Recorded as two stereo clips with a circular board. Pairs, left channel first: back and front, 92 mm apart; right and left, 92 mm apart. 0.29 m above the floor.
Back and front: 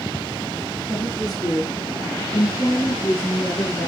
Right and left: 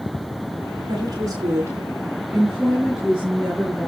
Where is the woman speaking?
125° left, 3 m; by 3.9 s 170° right, 5.5 m.